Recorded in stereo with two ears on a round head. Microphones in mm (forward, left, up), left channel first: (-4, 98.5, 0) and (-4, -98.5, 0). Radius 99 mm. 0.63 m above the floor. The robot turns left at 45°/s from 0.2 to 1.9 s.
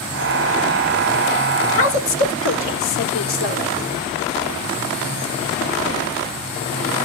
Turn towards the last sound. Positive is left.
turn(degrees=65)  # may be behind; listen again after turning